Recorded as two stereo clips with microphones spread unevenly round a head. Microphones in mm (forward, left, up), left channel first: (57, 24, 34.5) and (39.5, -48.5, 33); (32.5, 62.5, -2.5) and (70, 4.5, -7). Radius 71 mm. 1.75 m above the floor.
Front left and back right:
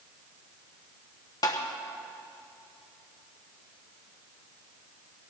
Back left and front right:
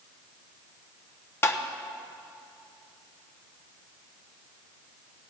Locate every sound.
1.4 s tapping: 95° left, 0.9 m